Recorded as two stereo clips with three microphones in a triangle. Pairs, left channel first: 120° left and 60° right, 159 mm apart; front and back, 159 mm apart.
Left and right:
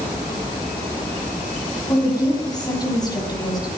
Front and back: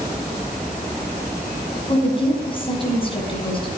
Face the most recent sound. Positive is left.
turn(degrees=55)